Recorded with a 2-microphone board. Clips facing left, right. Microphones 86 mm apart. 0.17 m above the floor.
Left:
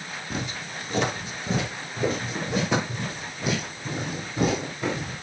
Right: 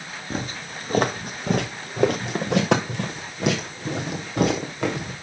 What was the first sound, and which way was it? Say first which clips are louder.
Footsteps: right 3 dB; 40° right (ahead or behind).